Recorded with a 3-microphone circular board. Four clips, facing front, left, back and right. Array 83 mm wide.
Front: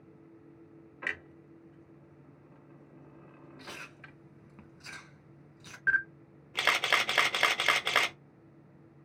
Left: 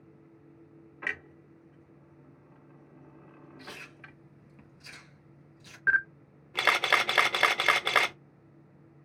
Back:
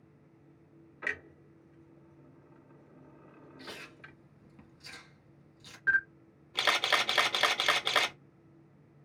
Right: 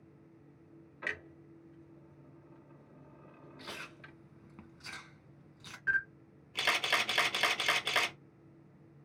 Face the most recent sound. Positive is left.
turn(degrees=85)